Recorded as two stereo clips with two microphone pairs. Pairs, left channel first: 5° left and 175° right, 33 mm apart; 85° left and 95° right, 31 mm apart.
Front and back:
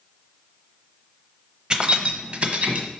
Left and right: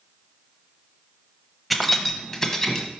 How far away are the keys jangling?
About 0.6 m.